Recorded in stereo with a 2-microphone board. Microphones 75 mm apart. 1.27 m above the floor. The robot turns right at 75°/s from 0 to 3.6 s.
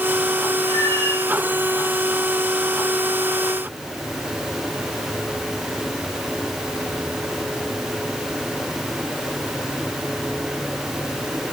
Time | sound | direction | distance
0.6 | a cat meowing | 65° left | 9 m